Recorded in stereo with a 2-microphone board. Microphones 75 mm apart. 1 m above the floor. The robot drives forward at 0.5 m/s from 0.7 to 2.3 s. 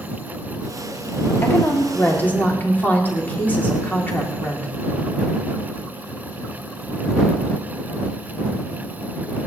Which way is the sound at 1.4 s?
30° left (ahead or behind).